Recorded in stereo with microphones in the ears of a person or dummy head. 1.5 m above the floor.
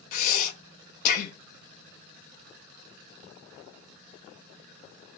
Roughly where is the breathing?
Left.